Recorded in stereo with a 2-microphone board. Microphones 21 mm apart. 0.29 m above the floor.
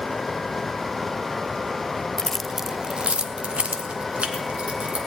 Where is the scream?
I don't hear a scream.